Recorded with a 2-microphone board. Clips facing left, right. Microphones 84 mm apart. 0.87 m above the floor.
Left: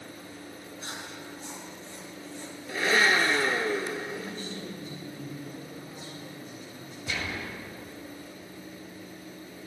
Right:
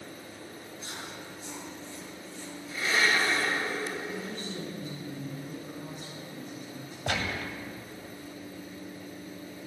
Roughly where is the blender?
Left.